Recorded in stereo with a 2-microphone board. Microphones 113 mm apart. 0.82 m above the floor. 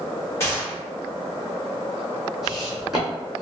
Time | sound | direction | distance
0.4 | a gunshot | 25° left (ahead or behind) | 1.8 m
2.4 | footsteps | 5° right (ahead or behind) | 1.6 m